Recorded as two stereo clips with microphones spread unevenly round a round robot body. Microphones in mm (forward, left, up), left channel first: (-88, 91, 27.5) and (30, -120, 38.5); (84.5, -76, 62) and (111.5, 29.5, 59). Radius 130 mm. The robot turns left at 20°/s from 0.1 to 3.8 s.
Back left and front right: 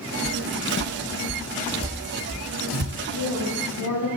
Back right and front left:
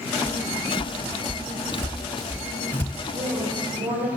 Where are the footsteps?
145° left, 1.1 m; by 3.0 s 50° right, 1.2 m.